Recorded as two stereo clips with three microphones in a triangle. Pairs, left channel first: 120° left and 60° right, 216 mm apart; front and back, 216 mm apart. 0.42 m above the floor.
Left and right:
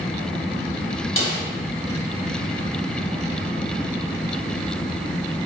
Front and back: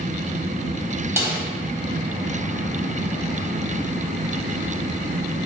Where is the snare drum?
105° left, 1.1 m.